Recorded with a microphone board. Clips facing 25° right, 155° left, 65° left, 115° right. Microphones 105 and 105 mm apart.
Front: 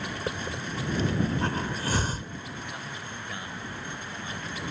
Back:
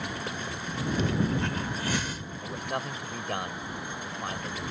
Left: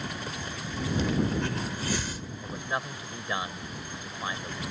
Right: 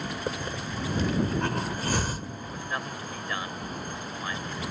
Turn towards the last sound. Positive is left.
turn(degrees=140)